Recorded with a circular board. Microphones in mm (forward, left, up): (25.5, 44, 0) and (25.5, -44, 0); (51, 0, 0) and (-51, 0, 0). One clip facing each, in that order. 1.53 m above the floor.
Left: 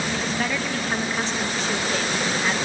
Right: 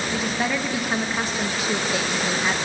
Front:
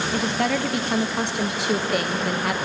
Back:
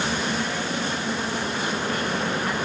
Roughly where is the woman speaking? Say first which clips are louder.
Right 1 dB, front 4 dB; ahead.